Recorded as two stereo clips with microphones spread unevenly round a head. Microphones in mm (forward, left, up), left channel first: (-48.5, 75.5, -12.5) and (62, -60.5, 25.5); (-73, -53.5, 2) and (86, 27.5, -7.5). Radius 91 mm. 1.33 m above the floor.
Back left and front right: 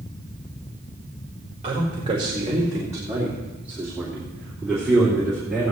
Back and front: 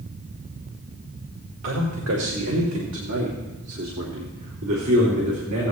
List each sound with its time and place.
1.6 s a man speaking: 5° left, 1.7 m; by 5.7 s 40° left, 3.5 m